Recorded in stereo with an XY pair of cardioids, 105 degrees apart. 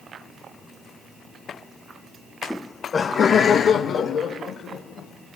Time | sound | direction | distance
2.5 | laughter | straight ahead | 0.6 m